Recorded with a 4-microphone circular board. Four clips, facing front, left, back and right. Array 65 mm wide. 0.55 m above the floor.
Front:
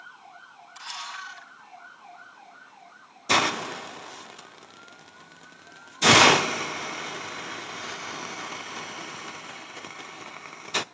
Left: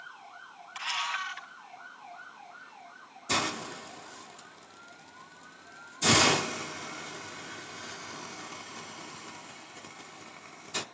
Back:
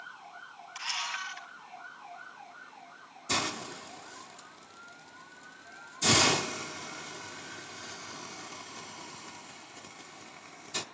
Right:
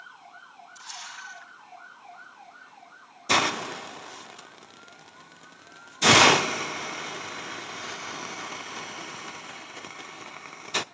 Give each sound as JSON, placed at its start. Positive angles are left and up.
{"t": 0.8, "sound": "a camera shutter", "azimuth_deg": 110, "distance_m": 2.5}
{"t": 3.3, "sound": "a hiss", "azimuth_deg": -40, "distance_m": 0.6}